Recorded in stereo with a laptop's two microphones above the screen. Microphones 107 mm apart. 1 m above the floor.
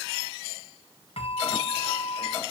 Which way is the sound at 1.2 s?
60° left (ahead or behind).